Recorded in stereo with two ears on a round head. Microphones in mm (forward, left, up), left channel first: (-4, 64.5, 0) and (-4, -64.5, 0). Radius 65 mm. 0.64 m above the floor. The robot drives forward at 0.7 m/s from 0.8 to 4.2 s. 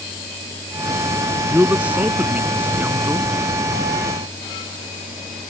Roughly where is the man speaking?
Centre.